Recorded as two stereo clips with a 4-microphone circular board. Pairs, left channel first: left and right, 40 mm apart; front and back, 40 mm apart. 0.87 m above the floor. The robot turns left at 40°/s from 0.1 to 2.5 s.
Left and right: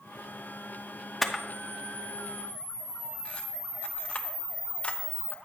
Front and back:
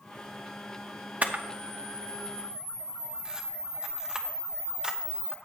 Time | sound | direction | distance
1.2 | a camera shutter | 175° left | 0.9 m